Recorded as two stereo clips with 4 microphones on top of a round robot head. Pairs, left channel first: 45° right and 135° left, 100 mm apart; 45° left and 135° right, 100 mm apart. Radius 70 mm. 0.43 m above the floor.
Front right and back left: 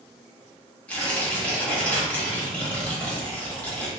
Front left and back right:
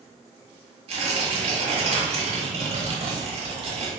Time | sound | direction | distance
0.9 | tearing paper | 120° right | 1.2 m